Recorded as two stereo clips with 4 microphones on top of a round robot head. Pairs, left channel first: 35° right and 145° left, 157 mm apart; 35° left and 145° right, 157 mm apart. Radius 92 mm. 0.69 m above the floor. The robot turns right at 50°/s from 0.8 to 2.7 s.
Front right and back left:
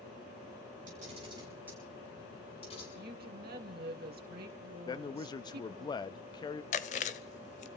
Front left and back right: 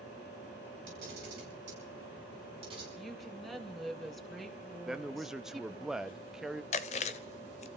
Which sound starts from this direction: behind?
A camera shutter, at 0.9 s.